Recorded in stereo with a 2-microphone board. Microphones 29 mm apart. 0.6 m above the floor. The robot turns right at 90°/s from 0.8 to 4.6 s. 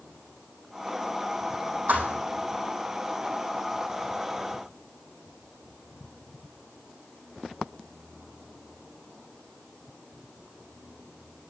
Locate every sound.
1.9 s a thud: 65° right (ahead or behind), 4 m; by 2.2 s 85° right, 4 m